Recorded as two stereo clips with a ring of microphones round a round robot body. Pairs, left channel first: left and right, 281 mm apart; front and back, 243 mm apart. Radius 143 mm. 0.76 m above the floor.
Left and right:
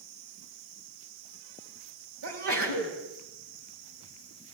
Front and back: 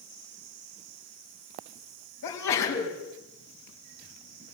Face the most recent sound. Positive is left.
turn(degrees=-45)